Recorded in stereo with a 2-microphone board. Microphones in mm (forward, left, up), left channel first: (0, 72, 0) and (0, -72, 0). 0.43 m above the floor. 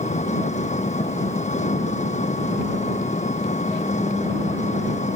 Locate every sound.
0.0 s an engine running: 55° left (ahead or behind)